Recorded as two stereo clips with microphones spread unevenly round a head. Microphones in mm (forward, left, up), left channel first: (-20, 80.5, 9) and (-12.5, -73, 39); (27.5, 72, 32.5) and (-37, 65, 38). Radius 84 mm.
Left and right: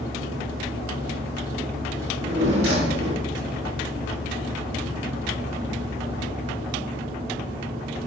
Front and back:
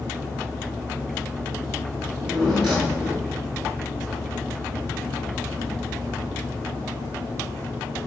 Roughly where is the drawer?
Right.